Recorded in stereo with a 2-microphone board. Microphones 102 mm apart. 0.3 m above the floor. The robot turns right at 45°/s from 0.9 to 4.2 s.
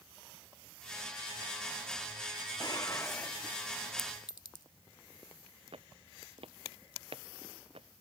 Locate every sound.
2.6 s dishes clattering: 135° left; by 3.6 s straight behind
4.0 s a clink: 45° left (ahead or behind)
5.7 s footsteps: 65° right (ahead or behind)